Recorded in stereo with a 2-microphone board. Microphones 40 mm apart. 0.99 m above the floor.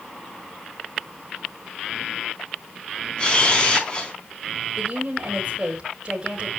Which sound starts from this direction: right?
A woman speaking, at 4.8 s.